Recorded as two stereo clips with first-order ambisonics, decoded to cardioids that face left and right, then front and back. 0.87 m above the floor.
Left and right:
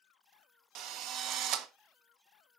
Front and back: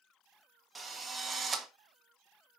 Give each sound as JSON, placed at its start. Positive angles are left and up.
{"t": 0.8, "sound": "a drill", "azimuth_deg": -105, "distance_m": 1.3}